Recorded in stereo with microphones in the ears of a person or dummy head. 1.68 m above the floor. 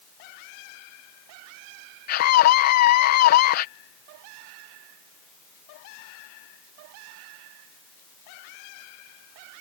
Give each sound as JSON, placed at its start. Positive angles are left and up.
{"t": 2.1, "sound": "a scream", "side_deg": 50}